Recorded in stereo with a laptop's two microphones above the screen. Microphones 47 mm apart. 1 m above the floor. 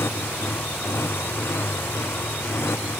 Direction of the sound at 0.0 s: 65° left (ahead or behind).